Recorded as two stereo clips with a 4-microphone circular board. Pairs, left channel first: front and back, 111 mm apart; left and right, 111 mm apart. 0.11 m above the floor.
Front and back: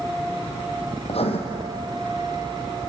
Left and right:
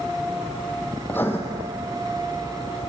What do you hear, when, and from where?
1.1 s writing: 20° left, 2.5 m